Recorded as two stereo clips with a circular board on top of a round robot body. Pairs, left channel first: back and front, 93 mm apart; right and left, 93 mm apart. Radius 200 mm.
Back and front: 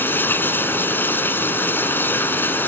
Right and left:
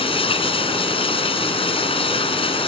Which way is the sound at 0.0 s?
110° right.